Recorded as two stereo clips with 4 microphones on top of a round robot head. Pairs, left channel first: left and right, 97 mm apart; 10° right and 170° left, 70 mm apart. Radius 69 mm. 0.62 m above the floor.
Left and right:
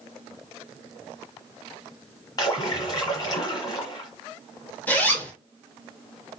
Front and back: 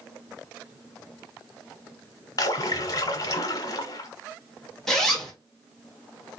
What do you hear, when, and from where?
2.4 s a splash: 30° left, 1.2 m
4.9 s a zipper: 65° left, 1.2 m